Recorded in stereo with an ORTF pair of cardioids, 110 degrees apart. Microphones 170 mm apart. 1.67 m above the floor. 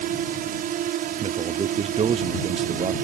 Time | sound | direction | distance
0.0 | a drone | 65° right | ?
1.2 | a man speaking | 35° right | ?